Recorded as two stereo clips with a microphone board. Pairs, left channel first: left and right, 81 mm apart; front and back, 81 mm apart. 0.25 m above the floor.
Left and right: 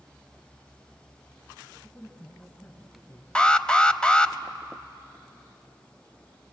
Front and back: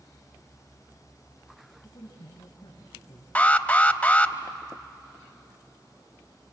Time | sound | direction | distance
1.8 | a man speaking | 30° left | 3.5 m
3.4 | an alarm | 35° left | 0.7 m